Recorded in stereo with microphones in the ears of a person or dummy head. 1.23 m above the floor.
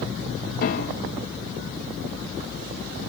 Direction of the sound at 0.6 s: 45° left (ahead or behind).